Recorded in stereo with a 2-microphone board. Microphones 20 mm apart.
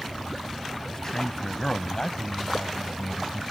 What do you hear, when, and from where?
0.9 s a man speaking: 30° left (ahead or behind); by 3.5 s 35° left (ahead or behind)